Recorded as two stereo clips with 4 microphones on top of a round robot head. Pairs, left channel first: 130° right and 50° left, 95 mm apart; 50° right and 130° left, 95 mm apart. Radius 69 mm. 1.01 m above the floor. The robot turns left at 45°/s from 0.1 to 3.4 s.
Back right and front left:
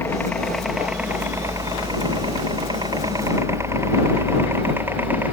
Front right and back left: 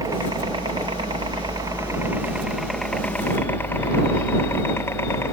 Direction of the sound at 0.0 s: 170° left.